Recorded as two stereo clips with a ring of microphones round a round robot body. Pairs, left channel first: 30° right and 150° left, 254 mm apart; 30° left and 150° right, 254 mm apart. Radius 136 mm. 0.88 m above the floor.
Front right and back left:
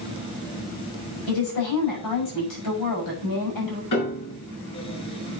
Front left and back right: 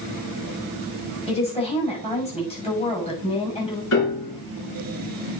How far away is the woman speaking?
About 6.5 m.